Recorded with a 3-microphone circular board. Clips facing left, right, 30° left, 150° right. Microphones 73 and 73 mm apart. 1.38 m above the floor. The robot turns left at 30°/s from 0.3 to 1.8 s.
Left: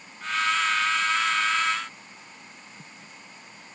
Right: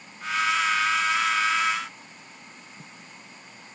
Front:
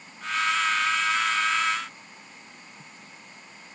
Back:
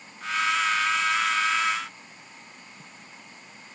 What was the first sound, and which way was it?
Only background noise.